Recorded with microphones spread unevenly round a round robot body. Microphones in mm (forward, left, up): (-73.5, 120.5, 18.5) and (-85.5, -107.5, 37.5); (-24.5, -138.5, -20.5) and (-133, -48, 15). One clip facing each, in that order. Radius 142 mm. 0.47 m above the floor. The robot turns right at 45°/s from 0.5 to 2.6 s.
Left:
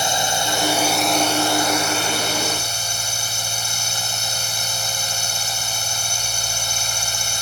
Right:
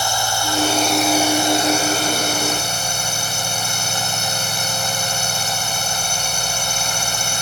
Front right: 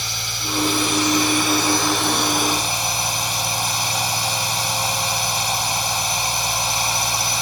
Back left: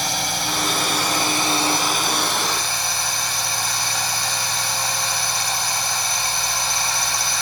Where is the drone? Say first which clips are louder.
Even, back left 7 dB; 155° left; by 7.4 s 110° right.